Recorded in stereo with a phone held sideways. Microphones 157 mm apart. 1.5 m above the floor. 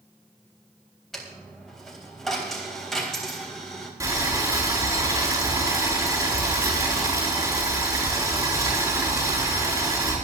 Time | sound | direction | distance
1.1 | a dropped coin | centre (ahead or behind) | 3.5 m
4.0 | boiling | 20° right (ahead or behind) | 6.5 m